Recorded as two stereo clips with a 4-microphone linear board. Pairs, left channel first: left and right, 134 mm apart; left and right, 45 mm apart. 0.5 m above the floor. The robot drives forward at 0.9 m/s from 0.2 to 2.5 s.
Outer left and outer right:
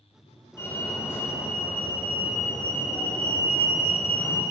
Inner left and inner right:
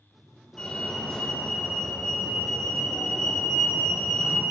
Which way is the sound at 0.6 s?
20° left (ahead or behind).